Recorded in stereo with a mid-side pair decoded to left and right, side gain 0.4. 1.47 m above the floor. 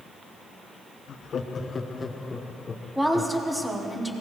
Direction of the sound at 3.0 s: 5° right.